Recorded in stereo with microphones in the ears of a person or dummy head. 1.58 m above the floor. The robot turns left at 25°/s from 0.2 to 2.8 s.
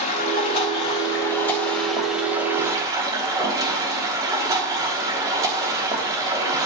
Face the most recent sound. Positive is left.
turn(degrees=-20)